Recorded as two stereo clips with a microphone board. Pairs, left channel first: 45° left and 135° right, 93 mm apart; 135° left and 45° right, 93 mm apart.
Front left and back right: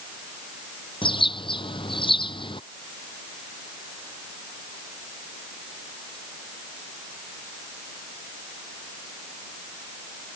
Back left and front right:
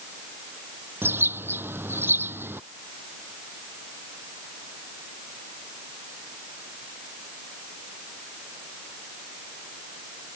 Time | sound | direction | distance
1.0 | a bird | 20° left | ?